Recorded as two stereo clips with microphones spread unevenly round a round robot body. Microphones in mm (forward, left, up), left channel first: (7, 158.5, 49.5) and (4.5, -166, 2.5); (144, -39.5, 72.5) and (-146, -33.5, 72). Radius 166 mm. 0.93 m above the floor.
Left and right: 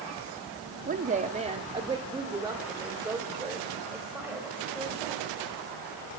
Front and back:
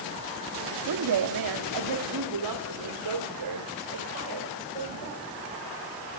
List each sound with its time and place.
0.9 s a woman speaking: 155° right, 1.5 m; by 5.2 s straight behind, 4.5 m